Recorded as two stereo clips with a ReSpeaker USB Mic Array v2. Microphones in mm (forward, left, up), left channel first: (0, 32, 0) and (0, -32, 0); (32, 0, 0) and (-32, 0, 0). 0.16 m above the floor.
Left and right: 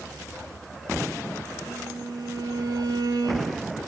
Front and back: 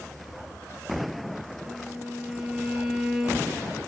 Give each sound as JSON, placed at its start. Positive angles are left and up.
{"t": 1.6, "sound": "a violin", "azimuth_deg": -100, "distance_m": 4.0}